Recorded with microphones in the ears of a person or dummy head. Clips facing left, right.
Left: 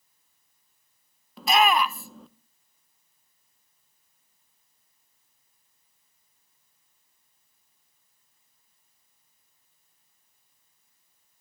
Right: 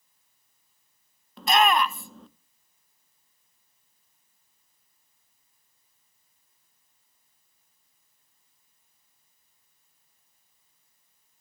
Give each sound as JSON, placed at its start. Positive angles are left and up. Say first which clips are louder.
{"t": 1.4, "sound": "a shout", "louder": "even", "side_deg": 0, "distance_m": 0.8}